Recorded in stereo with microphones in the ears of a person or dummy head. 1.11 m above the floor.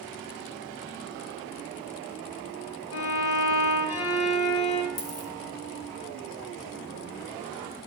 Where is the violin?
75° left (ahead or behind), 1.3 m.